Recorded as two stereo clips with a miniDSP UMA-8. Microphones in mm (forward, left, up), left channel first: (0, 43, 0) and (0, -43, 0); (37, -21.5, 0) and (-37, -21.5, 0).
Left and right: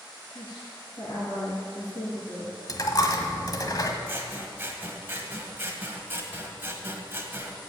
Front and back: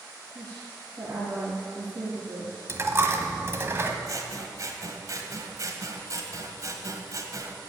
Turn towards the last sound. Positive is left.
turn(degrees=-150)